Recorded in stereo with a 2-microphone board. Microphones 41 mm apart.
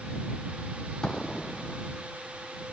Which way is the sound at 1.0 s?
20° left (ahead or behind).